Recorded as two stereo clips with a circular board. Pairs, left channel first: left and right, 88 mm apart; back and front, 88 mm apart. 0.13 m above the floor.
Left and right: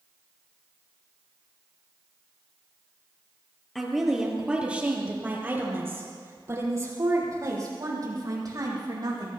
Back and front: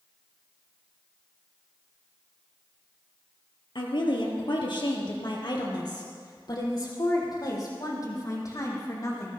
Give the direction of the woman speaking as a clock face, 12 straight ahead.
6 o'clock.